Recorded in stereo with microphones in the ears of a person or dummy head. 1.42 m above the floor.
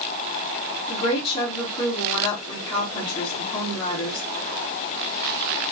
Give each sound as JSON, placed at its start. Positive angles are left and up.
{"t": 0.9, "sound": "a woman speaking", "side_deg": 30, "distance_m": 1.9}